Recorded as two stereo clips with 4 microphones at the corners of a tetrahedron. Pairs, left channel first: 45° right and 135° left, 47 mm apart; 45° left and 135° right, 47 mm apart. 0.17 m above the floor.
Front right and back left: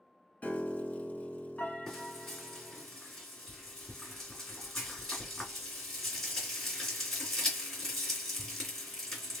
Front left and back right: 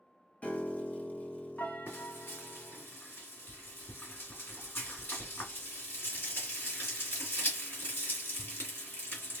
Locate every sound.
0.4 s a piano: straight ahead, 0.6 m
1.9 s frying: 35° left, 2.5 m